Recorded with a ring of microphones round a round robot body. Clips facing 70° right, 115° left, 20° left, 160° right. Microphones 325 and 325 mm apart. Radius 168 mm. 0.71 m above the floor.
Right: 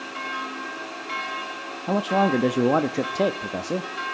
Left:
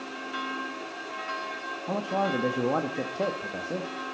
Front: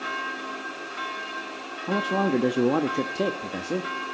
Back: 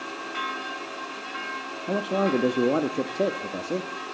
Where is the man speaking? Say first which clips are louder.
Right 7 dB, even; 60° right, 0.8 m.